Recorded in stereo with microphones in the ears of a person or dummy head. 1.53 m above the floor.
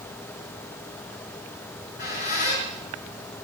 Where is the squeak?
50° left (ahead or behind), 6.5 m.